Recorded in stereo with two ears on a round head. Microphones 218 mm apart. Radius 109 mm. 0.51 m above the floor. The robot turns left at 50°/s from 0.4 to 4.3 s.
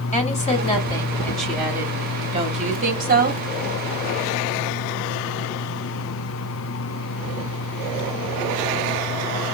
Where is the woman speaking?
55° left, 1.2 m; by 3.4 s 95° right, 1.2 m.